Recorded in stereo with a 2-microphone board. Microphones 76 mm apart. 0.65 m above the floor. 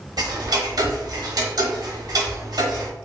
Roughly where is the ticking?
Right.